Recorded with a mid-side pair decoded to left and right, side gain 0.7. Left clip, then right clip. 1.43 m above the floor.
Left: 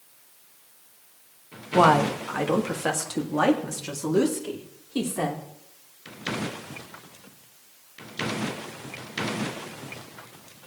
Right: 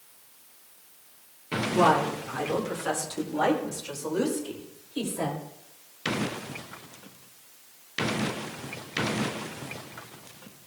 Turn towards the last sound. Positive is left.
turn(degrees=75)